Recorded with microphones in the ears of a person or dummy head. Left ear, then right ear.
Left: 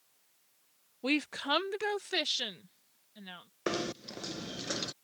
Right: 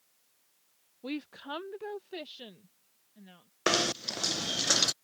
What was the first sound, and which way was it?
A woman speaking, 45° left (ahead or behind).